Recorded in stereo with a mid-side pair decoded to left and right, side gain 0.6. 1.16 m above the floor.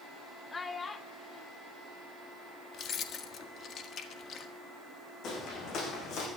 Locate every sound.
0.5 s a child speaking: 25° left, 1.2 m
2.7 s keys jangling: 50° left, 1.7 m
5.2 s footsteps: 55° left, 5.5 m